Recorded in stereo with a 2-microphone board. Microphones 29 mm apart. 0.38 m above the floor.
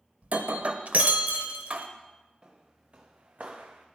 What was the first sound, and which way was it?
Breaking glass, 55° right (ahead or behind).